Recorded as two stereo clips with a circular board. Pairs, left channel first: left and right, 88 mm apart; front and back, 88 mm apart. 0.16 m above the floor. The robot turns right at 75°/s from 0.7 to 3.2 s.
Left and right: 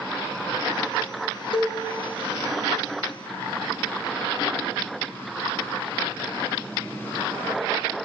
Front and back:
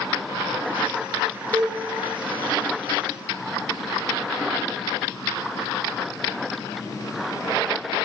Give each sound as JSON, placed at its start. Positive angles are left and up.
{"t": 1.5, "sound": "a cowbell", "azimuth_deg": 70, "distance_m": 0.9}